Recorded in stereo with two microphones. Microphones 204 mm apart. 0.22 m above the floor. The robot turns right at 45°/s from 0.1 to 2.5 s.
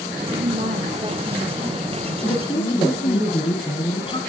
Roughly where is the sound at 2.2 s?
Centre.